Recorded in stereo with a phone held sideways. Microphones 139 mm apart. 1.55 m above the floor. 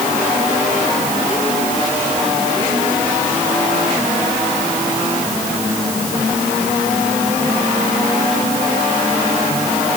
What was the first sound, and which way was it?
Only background noise.